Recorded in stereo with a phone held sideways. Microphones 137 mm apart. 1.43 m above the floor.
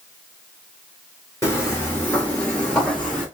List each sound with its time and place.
1.4 s footsteps: 20° left (ahead or behind), 1.5 m; by 3.2 s centre (ahead or behind), 2 m